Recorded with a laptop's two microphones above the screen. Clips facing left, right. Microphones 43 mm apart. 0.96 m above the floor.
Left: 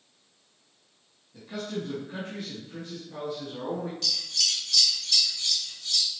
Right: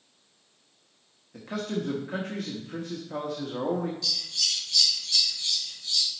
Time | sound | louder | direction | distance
1.3 | a man speaking | right 3 dB | 75° right (ahead or behind) | 1.1 m
4.0 | scissors | left 1 dB | 75° left (ahead or behind) | 2 m